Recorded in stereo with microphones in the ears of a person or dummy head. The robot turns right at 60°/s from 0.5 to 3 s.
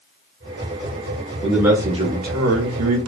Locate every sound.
1.4 s a man speaking: 175° left, 0.8 m; by 3.1 s 90° right, 0.8 m